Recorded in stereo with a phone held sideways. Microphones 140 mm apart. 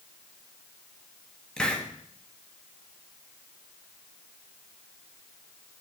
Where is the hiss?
5° left (ahead or behind), 1.3 m.